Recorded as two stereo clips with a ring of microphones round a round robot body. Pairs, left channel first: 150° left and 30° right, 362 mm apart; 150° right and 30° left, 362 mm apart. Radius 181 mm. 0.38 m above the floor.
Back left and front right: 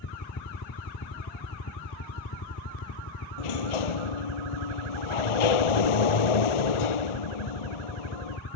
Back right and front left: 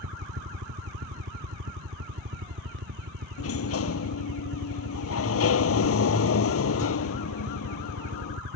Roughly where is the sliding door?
Behind left.